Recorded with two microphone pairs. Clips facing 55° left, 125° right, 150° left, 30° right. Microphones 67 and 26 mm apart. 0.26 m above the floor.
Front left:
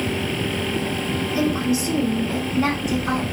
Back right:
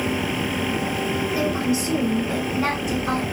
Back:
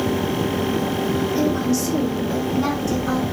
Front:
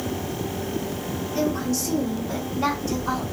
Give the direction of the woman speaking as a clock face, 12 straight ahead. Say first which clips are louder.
Front left 3 dB, even; 5 o'clock.